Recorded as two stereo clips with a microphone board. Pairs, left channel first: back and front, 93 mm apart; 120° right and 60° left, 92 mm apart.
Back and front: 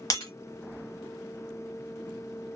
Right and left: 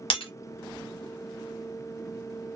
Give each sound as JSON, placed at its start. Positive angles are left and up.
{"t": 0.1, "sound": "breaking glass", "azimuth_deg": -130, "distance_m": 1.7}